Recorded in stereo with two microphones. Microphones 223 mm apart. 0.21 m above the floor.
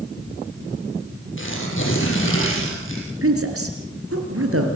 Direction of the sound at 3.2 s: 70° right (ahead or behind).